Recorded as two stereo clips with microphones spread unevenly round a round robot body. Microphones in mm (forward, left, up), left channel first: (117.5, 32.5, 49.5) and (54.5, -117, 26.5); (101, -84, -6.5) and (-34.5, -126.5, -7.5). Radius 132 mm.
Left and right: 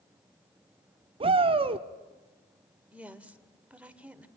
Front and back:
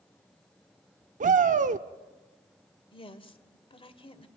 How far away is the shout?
About 0.9 m.